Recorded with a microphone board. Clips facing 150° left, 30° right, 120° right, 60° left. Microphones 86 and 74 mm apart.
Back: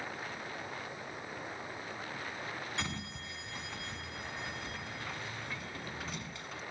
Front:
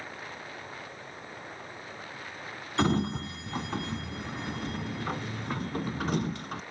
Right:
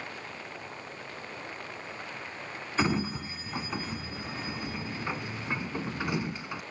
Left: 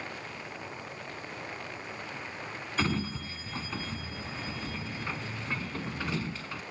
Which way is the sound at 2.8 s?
50° right.